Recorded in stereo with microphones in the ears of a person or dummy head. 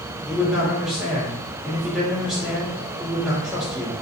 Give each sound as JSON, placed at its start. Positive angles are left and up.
{"t": 0.3, "sound": "a man speaking", "side_deg": 0, "distance_m": 0.9}